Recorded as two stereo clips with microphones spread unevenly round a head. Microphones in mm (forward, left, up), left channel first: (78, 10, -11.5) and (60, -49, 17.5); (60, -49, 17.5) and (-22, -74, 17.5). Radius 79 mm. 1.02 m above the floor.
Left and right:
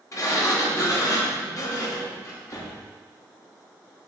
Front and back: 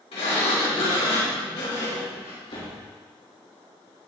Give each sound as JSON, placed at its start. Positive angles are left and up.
{"t": 0.1, "sound": "a sliding door", "azimuth_deg": 50, "distance_m": 2.5}